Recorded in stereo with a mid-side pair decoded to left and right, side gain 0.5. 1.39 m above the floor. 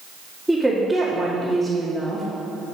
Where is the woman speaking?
Straight ahead, 2 m.